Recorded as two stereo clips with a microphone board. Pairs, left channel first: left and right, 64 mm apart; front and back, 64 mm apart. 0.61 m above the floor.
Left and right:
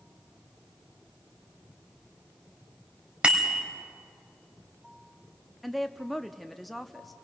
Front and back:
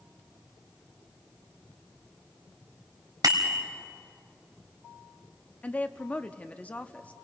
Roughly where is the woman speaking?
Ahead.